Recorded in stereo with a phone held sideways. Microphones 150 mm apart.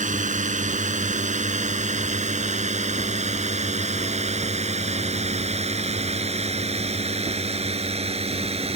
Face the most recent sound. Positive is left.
turn(degrees=-40)  # may be behind; listen again after turning